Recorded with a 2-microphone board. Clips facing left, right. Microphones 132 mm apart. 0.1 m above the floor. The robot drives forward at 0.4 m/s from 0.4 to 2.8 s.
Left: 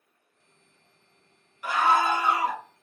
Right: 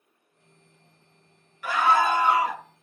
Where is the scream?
20° left (ahead or behind), 1.3 m.